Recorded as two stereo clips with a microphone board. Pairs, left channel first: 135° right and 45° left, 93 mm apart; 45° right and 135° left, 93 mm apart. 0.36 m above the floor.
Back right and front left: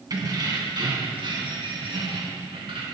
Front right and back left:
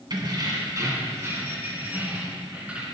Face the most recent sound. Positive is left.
turn(degrees=60)